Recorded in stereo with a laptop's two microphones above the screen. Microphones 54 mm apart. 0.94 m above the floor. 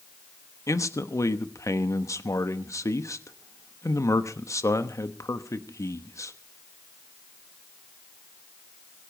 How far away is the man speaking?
About 1.0 m.